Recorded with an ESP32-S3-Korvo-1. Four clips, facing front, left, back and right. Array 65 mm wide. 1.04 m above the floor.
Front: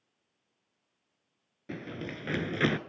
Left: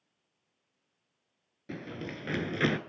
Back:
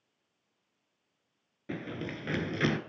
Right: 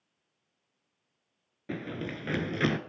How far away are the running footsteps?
About 1.0 m.